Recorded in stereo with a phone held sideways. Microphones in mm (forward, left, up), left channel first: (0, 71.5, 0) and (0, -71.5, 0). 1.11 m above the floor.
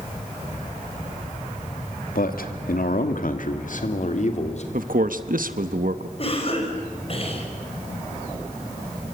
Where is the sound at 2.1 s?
80° left, 2 m; by 4.6 s 50° left (ahead or behind), 3 m.